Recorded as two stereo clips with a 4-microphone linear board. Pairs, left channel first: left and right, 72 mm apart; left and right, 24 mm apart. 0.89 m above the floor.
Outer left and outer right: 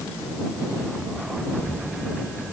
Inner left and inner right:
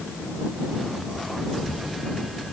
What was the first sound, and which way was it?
Only background noise.